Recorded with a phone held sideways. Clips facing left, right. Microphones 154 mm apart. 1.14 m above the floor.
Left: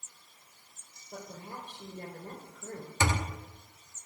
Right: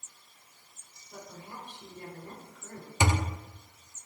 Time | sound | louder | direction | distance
1.1 | a woman speaking | left 2 dB | 60° left (ahead or behind) | 4 m
3.0 | a thud | right 2 dB | 15° right (ahead or behind) | 0.6 m